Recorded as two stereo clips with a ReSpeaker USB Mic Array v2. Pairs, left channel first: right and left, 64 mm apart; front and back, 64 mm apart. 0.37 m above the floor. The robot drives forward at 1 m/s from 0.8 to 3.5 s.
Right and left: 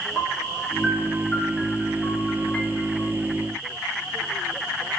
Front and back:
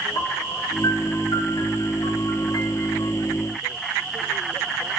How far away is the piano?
About 5 m.